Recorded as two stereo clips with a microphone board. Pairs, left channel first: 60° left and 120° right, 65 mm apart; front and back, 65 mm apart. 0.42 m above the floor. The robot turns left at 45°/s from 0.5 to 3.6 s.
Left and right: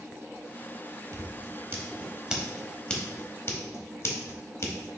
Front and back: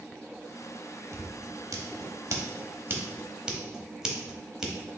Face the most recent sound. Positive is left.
turn(degrees=100)